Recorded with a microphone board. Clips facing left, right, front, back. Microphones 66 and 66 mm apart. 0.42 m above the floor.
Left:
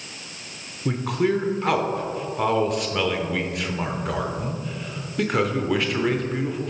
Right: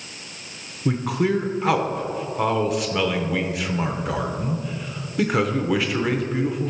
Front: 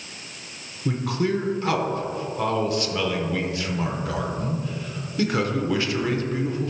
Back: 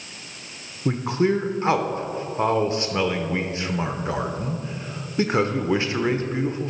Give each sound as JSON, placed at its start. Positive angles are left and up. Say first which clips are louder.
{"t": 0.8, "sound": "a man speaking", "louder": "right 1 dB, back 3 dB", "azimuth_deg": -175, "distance_m": 0.8}